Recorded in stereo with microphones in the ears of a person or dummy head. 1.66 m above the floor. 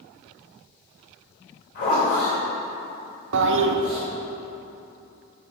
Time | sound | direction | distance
1.8 | a zipper | 40° left (ahead or behind) | 3.5 m
3.3 | a toilet flushing | 70° right (ahead or behind) | 0.8 m